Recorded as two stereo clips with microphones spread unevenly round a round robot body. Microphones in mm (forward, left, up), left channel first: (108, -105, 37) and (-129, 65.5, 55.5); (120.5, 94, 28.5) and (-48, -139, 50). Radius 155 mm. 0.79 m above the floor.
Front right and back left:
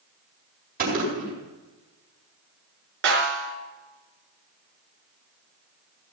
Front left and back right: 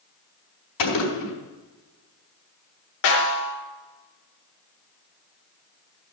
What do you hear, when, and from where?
0.8 s a gunshot: 80° left, 4.5 m
3.0 s a snare drum: 90° left, 4.5 m